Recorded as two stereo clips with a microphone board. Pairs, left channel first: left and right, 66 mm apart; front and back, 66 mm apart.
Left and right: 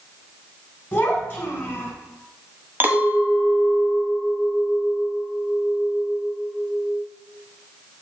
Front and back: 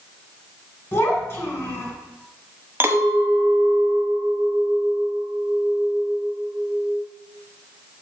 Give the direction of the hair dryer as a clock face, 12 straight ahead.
I don't hear a hair dryer.